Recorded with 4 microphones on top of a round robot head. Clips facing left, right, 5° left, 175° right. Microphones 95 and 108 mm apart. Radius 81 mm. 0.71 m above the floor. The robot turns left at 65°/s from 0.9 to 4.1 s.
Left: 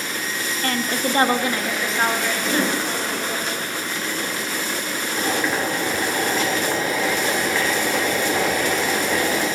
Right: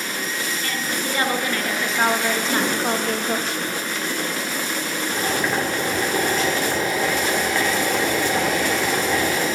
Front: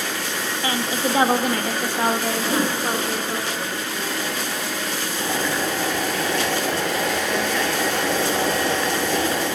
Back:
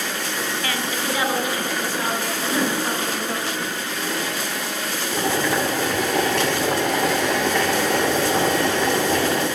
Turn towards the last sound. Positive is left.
turn(degrees=180)